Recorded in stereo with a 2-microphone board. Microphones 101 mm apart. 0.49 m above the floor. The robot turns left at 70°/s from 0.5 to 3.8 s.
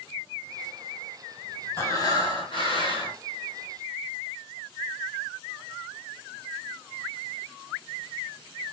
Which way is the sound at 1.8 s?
150° left.